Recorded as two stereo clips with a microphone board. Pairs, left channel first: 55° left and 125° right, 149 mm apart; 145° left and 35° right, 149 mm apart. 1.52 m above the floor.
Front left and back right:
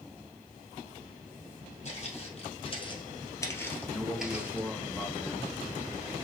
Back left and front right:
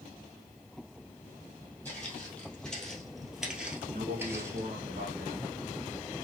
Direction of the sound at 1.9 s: 70° left.